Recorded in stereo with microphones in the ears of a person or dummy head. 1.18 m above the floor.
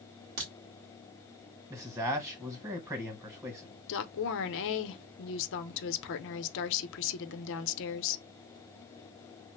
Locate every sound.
0.4 s a crack: 45° right (ahead or behind), 1.4 m
1.7 s a man speaking: 15° right (ahead or behind), 0.9 m
3.9 s a woman speaking: 60° left (ahead or behind), 0.6 m